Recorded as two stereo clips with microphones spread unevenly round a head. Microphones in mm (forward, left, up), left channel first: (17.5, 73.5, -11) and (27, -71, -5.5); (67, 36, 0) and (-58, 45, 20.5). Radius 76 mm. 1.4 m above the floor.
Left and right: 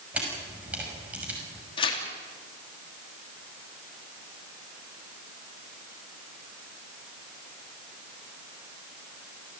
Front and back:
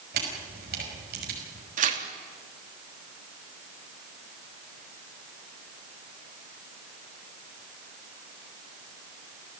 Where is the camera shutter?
165° right, 6 m.